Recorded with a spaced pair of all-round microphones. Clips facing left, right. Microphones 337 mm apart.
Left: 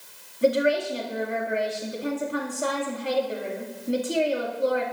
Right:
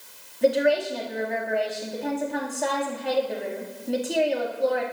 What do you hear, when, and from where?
0.4 s a woman speaking: 10° left (ahead or behind), 2 m